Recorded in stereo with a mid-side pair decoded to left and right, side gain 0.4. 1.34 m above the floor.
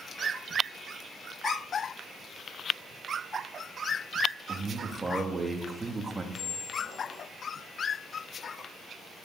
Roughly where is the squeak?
Ahead left.